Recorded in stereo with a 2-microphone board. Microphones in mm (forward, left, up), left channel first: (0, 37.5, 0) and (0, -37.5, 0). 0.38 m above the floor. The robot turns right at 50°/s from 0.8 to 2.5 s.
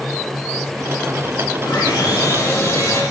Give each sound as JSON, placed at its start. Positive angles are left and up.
{"t": 1.6, "sound": "sawing", "azimuth_deg": 90, "distance_m": 8.5}